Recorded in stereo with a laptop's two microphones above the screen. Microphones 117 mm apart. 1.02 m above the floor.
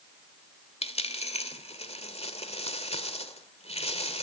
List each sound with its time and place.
0.8 s a dropped coin: 65° left (ahead or behind), 1.9 m